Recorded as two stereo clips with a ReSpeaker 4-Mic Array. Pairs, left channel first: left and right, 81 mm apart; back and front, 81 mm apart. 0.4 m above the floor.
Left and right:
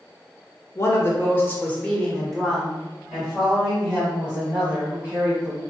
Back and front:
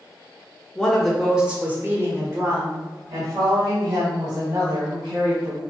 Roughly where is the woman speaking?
Left.